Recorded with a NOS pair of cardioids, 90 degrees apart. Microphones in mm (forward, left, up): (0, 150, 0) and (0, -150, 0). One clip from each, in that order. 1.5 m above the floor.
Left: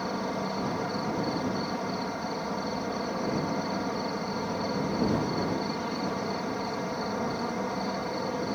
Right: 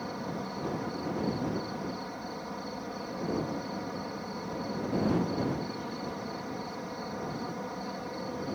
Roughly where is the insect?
Ahead left.